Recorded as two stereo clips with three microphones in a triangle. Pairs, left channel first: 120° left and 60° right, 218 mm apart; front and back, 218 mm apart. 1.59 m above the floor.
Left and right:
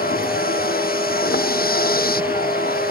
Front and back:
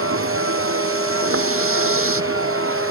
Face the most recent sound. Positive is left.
turn(degrees=165)